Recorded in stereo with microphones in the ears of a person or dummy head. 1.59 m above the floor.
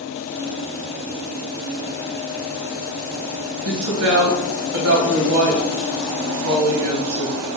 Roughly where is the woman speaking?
Right.